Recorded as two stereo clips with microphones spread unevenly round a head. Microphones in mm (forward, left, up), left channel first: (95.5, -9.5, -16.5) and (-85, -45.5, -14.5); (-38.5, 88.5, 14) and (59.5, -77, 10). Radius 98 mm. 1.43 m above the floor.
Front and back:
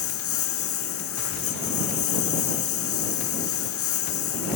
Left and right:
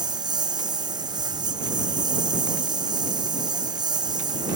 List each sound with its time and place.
0.0 s a lawn mower: 10° left